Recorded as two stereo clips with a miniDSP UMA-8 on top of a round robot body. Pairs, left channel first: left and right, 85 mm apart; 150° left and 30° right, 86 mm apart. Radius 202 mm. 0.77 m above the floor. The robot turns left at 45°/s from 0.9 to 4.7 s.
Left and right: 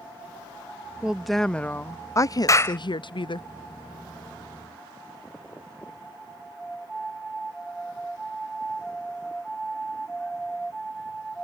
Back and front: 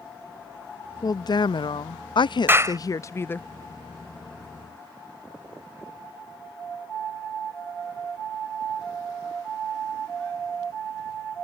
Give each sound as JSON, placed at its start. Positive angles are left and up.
{"t": 1.0, "sound": "a woman speaking", "azimuth_deg": -170}
{"t": 2.5, "sound": "a clap", "azimuth_deg": 35}